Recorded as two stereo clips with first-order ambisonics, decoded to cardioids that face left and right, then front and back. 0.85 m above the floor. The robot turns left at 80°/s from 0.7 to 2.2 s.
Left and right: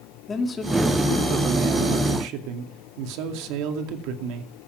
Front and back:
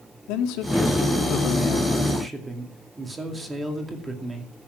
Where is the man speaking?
20° left, 2.5 m; by 4.5 s 100° right, 2.5 m.